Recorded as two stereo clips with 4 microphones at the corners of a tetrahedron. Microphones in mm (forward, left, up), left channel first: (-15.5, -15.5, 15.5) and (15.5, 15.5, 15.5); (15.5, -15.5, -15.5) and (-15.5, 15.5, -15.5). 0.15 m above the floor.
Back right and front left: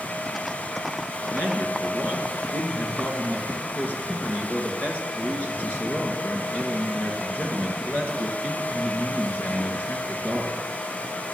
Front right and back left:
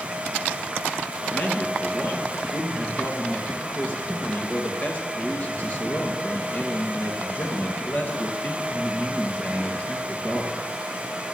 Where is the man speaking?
95° right, 2.5 m.